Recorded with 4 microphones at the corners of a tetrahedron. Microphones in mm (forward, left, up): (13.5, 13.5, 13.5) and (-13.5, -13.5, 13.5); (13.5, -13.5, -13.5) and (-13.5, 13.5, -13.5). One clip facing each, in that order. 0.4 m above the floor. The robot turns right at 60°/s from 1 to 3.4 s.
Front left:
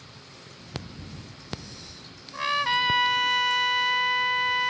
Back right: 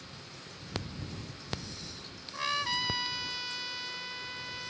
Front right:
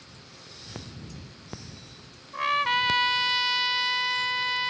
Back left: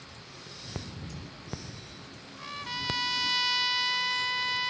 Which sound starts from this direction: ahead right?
A trumpet, at 2.3 s.